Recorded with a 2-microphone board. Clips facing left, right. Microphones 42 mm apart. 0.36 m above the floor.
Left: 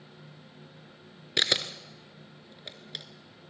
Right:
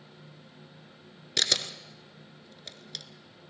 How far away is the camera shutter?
About 0.7 m.